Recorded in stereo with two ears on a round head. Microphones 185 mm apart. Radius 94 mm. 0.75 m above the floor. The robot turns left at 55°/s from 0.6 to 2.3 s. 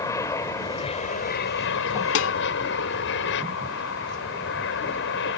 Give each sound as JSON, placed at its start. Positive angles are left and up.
{"t": 0.0, "sound": "an aircraft", "azimuth_deg": 165}
{"t": 2.1, "sound": "dishes clattering", "side_deg": 65}